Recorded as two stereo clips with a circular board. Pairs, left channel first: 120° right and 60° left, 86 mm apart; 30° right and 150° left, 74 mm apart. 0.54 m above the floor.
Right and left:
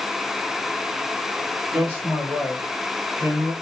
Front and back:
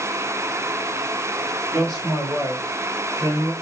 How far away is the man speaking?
About 1.8 m.